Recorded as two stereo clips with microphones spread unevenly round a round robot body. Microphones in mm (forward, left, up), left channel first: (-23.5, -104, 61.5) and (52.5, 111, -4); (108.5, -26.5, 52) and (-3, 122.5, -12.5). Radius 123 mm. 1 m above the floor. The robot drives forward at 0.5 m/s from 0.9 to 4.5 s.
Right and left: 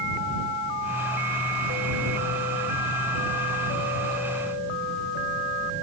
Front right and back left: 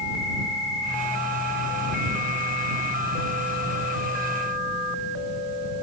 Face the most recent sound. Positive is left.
No sound to turn to.